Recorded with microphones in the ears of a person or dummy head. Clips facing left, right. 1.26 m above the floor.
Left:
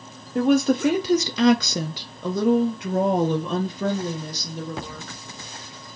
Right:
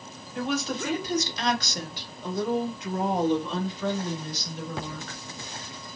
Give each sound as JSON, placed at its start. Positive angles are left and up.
{"t": 0.3, "sound": "a woman speaking", "side_deg": 35, "distance_m": 1.0}